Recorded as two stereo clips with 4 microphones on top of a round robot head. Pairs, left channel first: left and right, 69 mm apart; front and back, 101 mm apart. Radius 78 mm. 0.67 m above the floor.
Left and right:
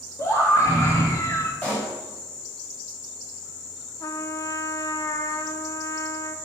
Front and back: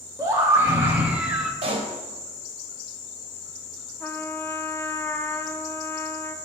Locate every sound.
0.2 s a scream: 125° left, 1.4 m; by 1.5 s 95° left, 1.1 m
1.6 s a pop: 155° left, 3.5 m
4.0 s a trumpet: 65° left, 0.9 m